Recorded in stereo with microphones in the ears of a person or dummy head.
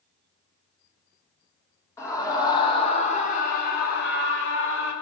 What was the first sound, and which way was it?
A scream, 20° left (ahead or behind).